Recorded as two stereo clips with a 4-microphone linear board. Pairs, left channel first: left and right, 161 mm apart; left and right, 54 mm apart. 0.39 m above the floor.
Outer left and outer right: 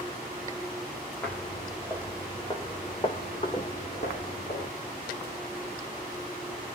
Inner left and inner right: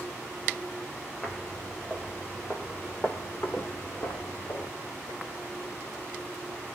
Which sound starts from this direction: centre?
Footsteps, at 1.2 s.